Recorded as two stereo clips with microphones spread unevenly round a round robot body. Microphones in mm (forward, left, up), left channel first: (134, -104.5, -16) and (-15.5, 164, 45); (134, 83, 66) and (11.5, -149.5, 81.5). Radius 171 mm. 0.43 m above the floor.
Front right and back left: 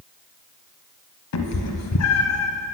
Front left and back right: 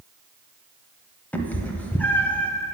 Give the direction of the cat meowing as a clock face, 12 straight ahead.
1 o'clock.